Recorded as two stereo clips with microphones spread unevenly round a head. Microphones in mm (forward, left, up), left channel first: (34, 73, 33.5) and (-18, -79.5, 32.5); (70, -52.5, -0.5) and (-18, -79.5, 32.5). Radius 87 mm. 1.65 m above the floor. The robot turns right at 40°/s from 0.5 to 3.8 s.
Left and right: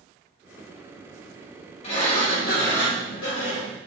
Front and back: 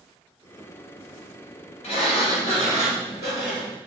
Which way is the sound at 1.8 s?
20° left.